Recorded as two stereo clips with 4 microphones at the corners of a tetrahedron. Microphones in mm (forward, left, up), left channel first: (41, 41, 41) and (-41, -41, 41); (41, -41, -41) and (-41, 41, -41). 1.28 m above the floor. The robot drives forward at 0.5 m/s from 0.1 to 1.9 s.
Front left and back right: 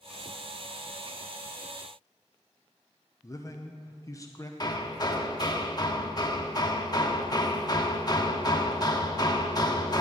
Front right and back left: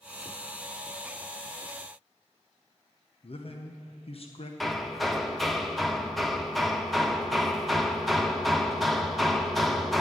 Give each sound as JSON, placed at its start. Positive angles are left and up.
{"t": 3.2, "sound": "a man speaking", "azimuth_deg": -15, "distance_m": 0.9}
{"t": 4.6, "sound": "hammering", "azimuth_deg": 45, "distance_m": 0.9}